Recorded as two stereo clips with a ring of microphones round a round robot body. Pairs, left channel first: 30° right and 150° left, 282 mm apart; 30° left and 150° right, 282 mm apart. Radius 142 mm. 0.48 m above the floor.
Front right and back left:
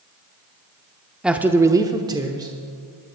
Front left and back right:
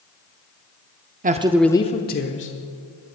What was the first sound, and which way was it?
A man speaking, 125° right.